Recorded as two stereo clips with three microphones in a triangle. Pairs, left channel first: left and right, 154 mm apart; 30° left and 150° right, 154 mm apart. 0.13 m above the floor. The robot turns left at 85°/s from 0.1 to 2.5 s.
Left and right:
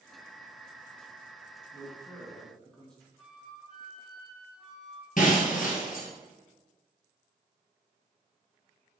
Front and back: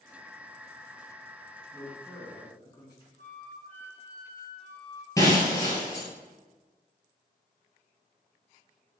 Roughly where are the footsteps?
I don't hear footsteps.